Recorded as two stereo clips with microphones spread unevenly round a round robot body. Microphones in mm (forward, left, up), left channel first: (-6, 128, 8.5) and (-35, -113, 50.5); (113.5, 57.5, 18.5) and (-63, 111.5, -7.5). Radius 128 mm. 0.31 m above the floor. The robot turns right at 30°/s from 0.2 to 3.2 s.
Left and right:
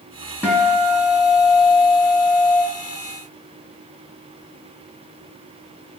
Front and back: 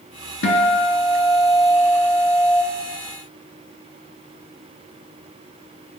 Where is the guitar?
5° right, 1.5 m; by 2.6 s 60° left, 1.5 m.